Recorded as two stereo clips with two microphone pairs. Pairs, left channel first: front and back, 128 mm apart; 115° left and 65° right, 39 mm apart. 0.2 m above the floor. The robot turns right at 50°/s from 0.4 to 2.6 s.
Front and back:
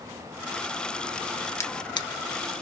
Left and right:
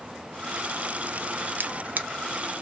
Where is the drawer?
60° right, 0.8 m; by 2.1 s 40° right, 0.8 m.